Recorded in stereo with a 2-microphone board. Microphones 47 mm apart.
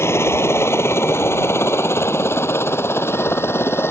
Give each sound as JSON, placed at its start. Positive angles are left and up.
{"t": 0.0, "sound": "a helicopter", "side_deg": 60}